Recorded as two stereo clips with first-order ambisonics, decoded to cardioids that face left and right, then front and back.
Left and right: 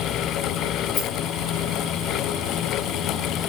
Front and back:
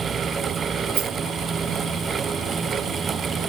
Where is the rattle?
145° left, 9.5 m.